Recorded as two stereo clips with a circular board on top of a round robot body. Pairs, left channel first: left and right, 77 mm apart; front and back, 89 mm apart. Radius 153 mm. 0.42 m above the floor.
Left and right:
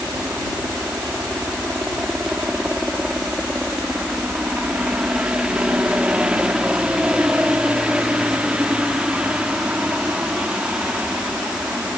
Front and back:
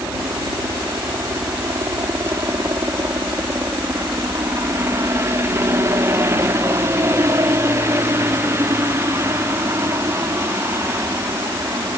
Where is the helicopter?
155° right.